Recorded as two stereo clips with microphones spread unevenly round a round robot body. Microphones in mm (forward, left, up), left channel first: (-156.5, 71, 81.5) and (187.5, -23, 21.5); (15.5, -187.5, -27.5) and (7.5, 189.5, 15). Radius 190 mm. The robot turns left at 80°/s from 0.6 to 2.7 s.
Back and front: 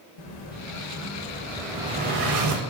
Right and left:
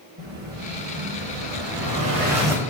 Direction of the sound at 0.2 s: 155° left.